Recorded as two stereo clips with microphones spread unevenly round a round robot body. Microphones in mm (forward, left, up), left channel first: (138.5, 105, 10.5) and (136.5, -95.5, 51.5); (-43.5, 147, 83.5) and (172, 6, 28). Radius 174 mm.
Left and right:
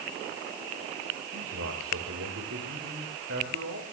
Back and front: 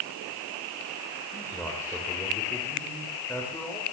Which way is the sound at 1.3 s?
125° right.